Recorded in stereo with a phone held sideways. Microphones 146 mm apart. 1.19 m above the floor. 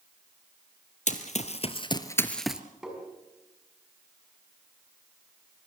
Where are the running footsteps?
55° left (ahead or behind), 2 m; by 2.6 s 10° right (ahead or behind), 1.4 m.